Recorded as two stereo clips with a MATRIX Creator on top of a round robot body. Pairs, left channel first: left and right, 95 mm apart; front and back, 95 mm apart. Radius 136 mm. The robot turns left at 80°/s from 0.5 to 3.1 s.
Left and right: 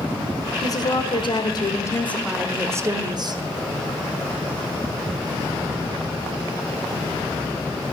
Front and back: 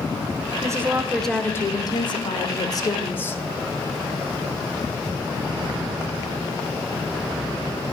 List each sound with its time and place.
0.6 s a woman speaking: 135° left, 1.7 m; by 3.4 s 65° right, 1.7 m